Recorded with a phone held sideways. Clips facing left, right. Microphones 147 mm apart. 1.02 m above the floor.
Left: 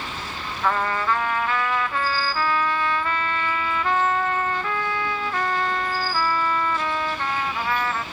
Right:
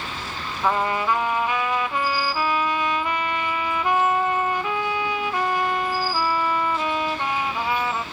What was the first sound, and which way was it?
A trumpet, 15° right (ahead or behind).